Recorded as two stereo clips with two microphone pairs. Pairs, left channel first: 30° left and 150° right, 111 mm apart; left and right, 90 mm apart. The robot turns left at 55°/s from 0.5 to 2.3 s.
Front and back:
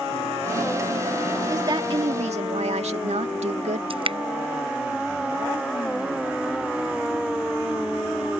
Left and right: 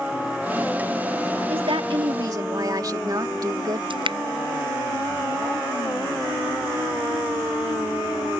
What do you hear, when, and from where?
1.5 s a woman speaking: 90° right; by 3.8 s 135° right
3.9 s dripping: 115° right